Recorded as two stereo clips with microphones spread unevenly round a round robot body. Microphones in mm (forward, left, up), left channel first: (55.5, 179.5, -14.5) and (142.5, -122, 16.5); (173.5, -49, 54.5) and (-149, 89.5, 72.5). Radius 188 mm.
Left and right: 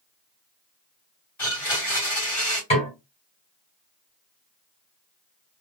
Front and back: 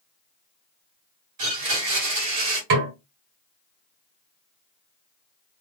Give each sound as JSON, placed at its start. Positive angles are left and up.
{"t": 1.4, "sound": "a blender", "azimuth_deg": -170, "distance_m": 2.5}
{"t": 2.7, "sound": "a snare drum", "azimuth_deg": 175, "distance_m": 2.0}